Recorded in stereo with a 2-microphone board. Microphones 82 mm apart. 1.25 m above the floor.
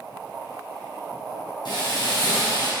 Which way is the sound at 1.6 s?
65° left (ahead or behind).